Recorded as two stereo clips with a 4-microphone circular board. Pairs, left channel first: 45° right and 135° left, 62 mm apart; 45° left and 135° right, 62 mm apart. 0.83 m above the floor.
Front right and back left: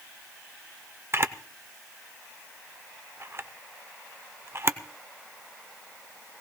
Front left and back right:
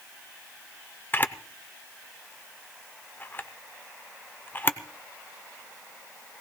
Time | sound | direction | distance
1.1 | a camera shutter | 100° left | 0.6 m